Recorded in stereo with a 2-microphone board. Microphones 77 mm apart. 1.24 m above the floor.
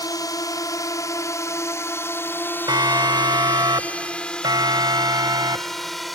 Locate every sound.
0.0 s a drone: 55° left (ahead or behind); by 6.2 s centre (ahead or behind)
2.7 s a siren: 65° right (ahead or behind); by 6.2 s 55° right (ahead or behind)